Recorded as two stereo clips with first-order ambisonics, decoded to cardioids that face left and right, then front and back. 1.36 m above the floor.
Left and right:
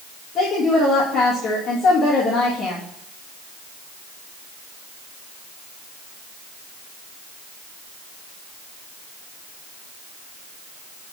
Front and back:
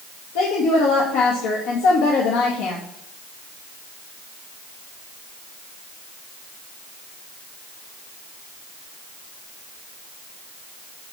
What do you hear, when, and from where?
0.3 s a woman speaking: 20° left, 1.8 m